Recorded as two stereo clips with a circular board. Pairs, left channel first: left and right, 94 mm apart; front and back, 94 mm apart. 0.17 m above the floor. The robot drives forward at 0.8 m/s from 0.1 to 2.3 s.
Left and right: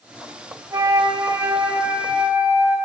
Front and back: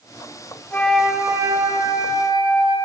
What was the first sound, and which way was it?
A flute, 55° right.